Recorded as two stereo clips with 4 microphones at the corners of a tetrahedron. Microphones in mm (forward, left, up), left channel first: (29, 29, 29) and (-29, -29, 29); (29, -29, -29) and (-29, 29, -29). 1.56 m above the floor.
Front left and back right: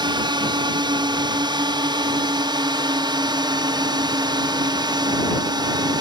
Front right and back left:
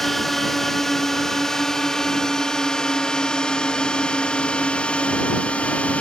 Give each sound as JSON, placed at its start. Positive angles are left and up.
{"t": 0.0, "sound": "a drone", "azimuth_deg": -130}